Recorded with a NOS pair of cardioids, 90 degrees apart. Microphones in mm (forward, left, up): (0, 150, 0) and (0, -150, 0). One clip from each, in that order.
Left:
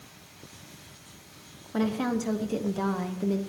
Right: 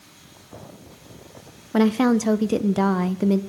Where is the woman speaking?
40° right, 0.6 m.